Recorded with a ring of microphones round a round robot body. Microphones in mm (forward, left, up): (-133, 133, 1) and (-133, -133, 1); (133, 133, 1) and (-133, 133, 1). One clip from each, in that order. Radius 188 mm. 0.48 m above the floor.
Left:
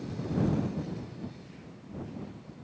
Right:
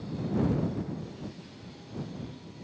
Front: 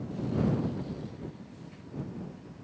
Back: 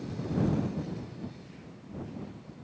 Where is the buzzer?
No buzzer in this recording.